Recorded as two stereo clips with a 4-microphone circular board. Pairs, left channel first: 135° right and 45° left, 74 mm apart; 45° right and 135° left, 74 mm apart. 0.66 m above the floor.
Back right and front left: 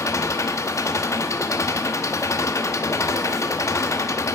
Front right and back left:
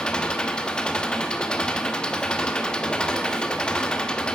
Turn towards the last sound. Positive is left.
turn(degrees=-120)